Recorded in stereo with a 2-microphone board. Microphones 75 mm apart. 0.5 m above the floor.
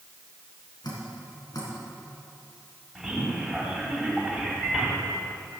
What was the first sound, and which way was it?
Dripping, 70° left (ahead or behind).